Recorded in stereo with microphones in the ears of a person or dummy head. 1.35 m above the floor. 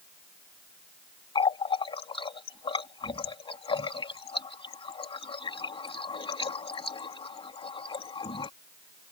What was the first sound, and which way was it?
A running tap, 30° left (ahead or behind).